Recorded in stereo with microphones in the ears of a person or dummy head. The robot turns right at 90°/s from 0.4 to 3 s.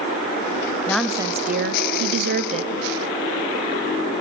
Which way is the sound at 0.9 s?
170° left.